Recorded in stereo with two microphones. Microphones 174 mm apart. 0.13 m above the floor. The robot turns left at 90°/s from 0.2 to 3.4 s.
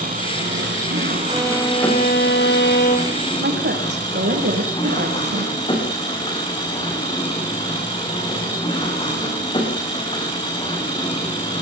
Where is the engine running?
45° right, 9.5 m; by 11.6 s 30° left, 9.5 m.